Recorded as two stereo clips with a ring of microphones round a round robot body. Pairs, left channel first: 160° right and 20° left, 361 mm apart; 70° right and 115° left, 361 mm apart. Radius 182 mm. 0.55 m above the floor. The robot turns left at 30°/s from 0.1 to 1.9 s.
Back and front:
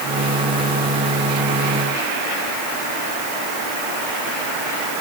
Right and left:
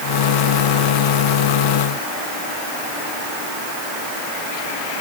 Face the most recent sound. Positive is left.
No sound to turn to.